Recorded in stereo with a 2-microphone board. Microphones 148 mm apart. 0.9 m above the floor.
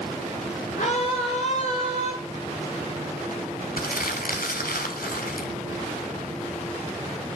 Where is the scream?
65° left (ahead or behind), 10 m; by 2.1 s 60° left (ahead or behind), 10 m.